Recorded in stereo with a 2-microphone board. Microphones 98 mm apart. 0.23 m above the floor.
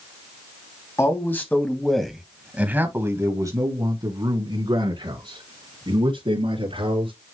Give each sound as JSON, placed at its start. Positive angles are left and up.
{"t": 1.0, "sound": "a man speaking", "side_deg": 25, "distance_m": 1.9}